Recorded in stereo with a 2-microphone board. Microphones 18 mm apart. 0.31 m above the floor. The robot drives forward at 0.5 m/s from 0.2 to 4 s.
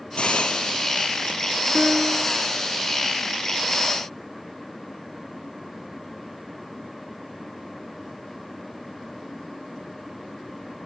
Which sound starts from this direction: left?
A hiss, at 0.2 s.